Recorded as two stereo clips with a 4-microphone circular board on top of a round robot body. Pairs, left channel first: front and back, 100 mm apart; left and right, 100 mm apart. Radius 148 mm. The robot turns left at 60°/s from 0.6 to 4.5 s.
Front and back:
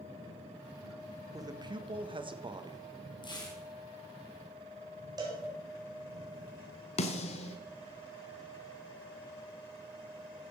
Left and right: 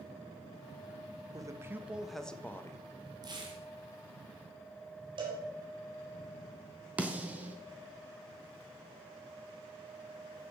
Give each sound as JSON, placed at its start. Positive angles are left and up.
{"t": 1.3, "sound": "a man speaking", "azimuth_deg": -130, "distance_m": 1.5}
{"t": 3.2, "sound": "tearing paper", "azimuth_deg": -40, "distance_m": 3.5}
{"t": 5.2, "sound": "a cowbell", "azimuth_deg": -130, "distance_m": 4.0}
{"t": 7.0, "sound": "a snare drum", "azimuth_deg": -10, "distance_m": 1.1}